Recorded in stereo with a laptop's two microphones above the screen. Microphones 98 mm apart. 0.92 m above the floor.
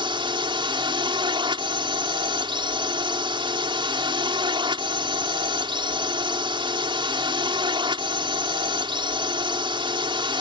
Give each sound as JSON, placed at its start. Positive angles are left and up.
{"t": 0.0, "sound": "a drone", "side_deg": -60}